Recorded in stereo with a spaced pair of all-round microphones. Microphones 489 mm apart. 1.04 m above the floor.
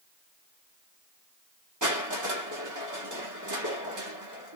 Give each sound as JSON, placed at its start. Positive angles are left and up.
{"t": 1.8, "sound": "crushing", "side_deg": -35, "distance_m": 1.3}